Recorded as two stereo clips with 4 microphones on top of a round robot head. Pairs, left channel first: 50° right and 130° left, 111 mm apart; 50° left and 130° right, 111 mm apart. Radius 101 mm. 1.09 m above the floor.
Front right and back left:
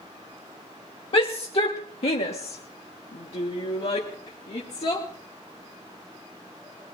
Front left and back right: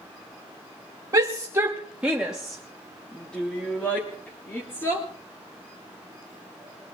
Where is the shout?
80° right, 1.5 m; by 5.0 s 15° right, 3 m.